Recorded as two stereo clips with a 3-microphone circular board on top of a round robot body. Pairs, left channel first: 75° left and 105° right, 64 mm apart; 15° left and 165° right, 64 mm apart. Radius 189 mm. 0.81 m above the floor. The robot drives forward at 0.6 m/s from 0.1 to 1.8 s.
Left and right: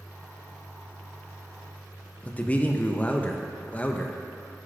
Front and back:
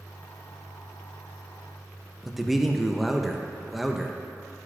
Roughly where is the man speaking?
Left.